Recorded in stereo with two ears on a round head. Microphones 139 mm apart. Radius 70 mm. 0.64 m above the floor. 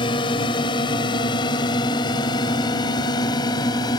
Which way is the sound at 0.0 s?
30° left (ahead or behind).